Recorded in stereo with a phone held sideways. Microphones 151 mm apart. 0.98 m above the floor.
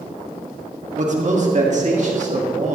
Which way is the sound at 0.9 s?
55° right (ahead or behind).